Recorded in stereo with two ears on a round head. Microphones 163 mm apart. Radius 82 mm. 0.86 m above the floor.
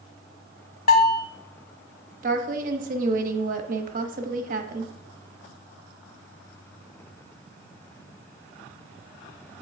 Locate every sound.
0.9 s a bell: 50° left (ahead or behind), 0.7 m
2.2 s a woman speaking: 45° right (ahead or behind), 0.8 m